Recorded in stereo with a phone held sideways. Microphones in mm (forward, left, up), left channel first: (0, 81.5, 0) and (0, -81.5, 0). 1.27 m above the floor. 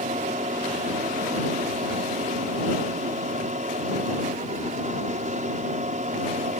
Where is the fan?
50° right (ahead or behind).